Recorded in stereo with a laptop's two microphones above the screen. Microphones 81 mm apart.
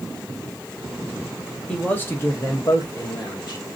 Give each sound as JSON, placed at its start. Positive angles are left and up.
{"t": 1.7, "sound": "a man speaking", "side_deg": 15, "distance_m": 1.0}